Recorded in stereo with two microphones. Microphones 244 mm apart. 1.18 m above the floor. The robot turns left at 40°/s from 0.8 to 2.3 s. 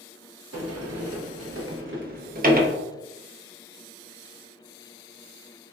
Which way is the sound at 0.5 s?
80° right.